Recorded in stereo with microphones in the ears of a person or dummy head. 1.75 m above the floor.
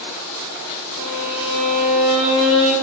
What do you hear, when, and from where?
1.0 s a violin: 90° right, 8 m